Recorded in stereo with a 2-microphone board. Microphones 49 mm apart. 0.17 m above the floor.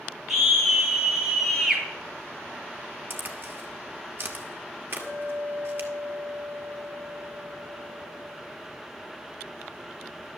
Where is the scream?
5° right (ahead or behind), 3.5 m.